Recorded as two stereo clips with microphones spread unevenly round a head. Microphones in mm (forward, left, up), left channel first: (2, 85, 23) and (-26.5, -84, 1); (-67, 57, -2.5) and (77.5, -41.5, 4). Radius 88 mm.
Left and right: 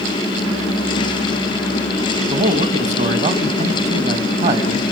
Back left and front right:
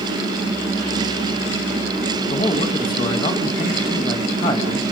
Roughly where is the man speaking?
Behind right.